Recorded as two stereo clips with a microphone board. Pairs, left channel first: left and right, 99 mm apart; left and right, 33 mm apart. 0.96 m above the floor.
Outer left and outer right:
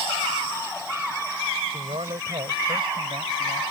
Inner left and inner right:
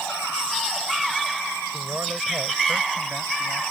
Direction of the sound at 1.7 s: 70° right (ahead or behind).